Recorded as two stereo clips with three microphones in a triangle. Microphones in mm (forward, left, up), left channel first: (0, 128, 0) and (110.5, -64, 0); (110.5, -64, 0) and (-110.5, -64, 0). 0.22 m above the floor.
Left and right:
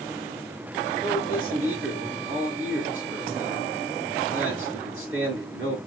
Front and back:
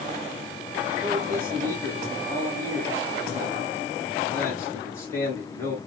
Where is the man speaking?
80° right, 3.5 m.